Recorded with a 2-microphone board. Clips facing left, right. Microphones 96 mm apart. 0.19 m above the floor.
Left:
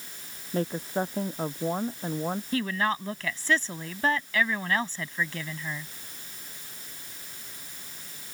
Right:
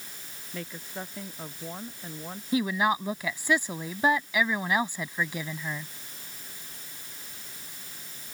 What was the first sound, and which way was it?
A woman speaking, 40° left (ahead or behind).